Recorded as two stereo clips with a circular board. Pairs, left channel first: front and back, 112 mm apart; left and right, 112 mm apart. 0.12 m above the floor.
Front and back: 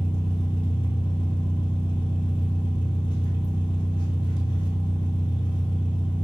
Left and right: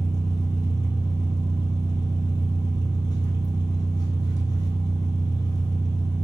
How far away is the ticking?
I don't hear ticking.